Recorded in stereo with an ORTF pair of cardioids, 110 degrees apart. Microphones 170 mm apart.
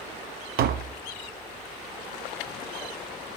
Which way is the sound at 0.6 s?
65° right.